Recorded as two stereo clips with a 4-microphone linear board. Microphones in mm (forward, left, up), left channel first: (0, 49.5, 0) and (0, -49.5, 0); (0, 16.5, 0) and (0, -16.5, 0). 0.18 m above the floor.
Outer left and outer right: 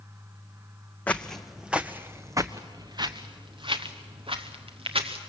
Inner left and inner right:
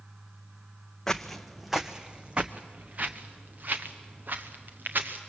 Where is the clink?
No clink in this recording.